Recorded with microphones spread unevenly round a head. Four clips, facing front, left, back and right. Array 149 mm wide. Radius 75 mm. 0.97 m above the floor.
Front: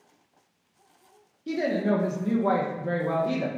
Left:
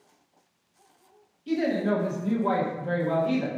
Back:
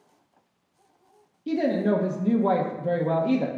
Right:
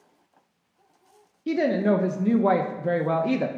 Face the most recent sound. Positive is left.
turn(degrees=-115)